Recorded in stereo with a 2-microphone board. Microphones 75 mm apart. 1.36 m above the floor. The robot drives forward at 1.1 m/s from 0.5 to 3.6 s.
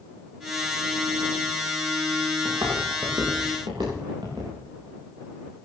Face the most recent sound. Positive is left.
turn(degrees=-80)